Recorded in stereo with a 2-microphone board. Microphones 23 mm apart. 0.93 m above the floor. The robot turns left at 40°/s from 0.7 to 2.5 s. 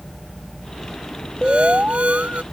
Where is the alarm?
50° right; by 2.4 s 90° right.